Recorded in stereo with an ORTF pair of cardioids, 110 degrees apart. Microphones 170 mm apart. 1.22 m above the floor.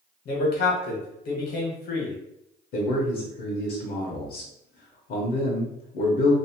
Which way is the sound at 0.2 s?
65° left.